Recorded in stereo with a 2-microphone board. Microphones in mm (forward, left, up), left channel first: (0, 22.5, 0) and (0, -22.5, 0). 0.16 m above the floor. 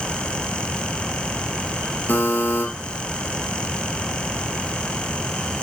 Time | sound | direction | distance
2.1 | a buzzer | 45° left (ahead or behind) | 2 m